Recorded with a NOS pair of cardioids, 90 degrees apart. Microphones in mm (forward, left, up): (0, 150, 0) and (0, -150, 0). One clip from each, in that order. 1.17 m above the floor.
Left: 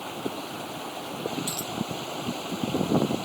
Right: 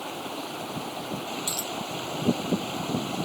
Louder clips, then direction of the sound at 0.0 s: Even; 15° right.